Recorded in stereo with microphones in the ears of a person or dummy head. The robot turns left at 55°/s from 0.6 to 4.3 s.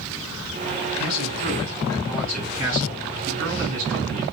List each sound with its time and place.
1.0 s a man speaking: 70° left, 3.5 m; by 4.2 s 110° right, 3.5 m